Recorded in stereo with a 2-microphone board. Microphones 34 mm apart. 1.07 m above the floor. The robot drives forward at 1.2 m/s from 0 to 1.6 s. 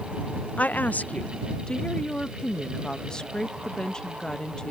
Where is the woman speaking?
45° left (ahead or behind); by 4.7 s 25° left (ahead or behind).